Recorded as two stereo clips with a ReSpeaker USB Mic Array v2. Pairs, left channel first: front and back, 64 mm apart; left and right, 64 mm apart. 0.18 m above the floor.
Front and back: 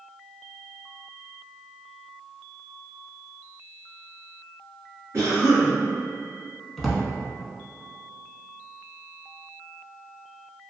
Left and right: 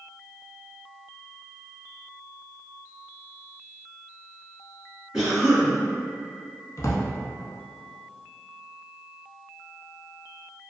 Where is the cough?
165° right, 1.5 m.